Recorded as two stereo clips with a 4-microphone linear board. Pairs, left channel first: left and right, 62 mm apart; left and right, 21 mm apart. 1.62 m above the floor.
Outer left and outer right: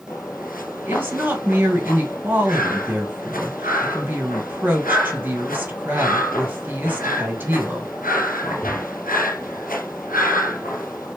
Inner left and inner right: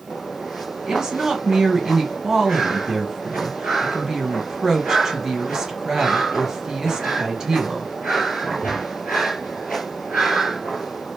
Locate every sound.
0.9 s a woman speaking: 30° right (ahead or behind), 1.8 m